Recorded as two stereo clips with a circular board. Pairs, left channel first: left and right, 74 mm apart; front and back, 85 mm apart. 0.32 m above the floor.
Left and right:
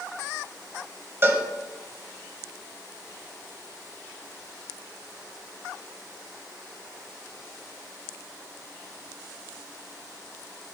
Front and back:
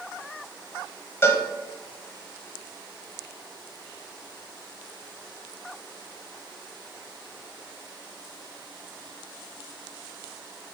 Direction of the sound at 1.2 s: 50° right.